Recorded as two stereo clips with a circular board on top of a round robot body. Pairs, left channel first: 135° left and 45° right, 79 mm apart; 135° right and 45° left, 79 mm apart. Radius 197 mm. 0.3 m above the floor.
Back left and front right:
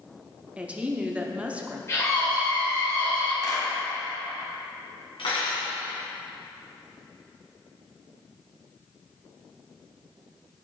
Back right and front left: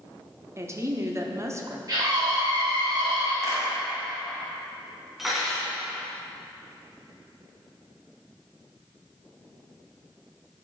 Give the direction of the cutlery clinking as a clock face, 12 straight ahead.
8 o'clock.